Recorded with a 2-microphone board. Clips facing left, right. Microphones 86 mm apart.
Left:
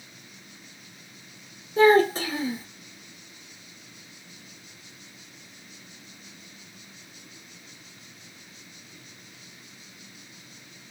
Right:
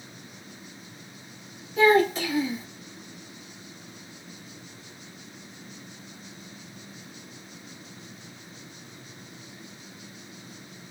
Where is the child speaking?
35° left (ahead or behind), 0.9 m.